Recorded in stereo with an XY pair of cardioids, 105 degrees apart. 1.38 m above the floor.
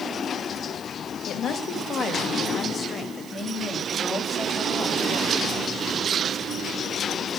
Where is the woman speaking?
70° left, 2.5 m; by 6.1 s 15° left, 5 m.